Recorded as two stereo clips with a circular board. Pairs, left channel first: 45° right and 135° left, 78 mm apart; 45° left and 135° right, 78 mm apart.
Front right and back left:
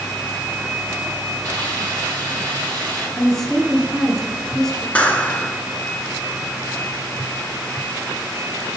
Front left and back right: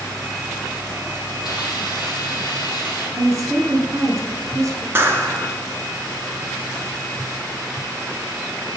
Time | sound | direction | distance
1.4 | a hiss | 20° left | 3.5 m
3.2 | a woman speaking | 125° right | 1.8 m
5.0 | a clap | 105° right | 1.0 m